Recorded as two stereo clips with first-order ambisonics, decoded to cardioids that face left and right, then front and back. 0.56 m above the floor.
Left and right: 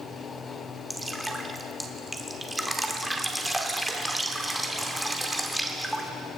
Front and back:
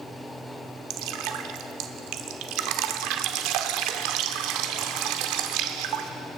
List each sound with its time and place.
0.9 s dripping: 175° right, 0.8 m